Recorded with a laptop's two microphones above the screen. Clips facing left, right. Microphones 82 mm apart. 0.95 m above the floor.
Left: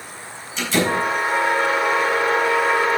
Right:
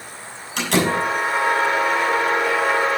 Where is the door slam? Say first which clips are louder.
Right 1 dB; 75° right (ahead or behind), 6.5 m.